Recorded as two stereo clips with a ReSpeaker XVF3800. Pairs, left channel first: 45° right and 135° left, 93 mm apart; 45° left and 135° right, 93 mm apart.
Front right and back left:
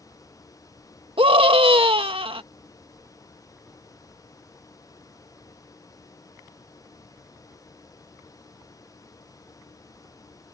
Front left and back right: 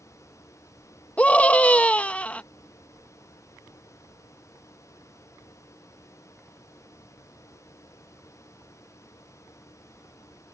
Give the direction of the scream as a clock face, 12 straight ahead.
8 o'clock.